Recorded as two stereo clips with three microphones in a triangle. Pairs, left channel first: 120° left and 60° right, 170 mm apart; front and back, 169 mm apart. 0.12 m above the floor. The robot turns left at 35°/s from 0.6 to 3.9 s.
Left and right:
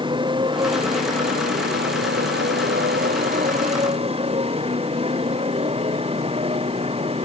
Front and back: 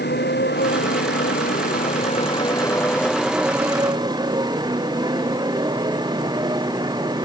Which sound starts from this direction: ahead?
A motorcycle, at 0.0 s.